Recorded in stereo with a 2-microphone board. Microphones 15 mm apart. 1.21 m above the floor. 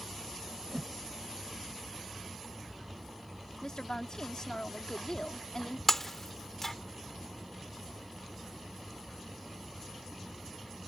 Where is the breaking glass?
20° left (ahead or behind).